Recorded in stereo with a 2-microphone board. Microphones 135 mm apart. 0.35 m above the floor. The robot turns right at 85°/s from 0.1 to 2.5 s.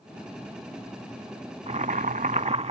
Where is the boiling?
125° right; by 2.7 s 55° right.